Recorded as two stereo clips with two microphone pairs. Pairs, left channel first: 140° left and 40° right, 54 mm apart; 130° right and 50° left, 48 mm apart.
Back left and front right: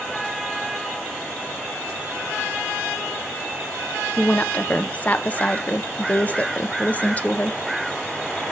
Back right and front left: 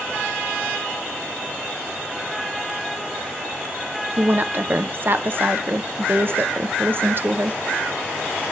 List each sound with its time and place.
4.2 s a woman speaking: 80° left, 0.7 m